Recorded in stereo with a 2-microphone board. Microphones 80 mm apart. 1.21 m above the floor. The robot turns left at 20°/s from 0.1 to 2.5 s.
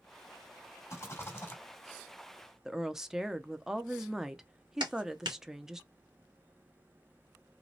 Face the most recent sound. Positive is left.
turn(degrees=-70)  # may be behind; listen again after turning